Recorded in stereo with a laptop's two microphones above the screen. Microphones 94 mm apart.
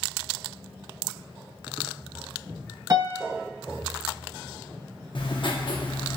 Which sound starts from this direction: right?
A piano, at 2.9 s.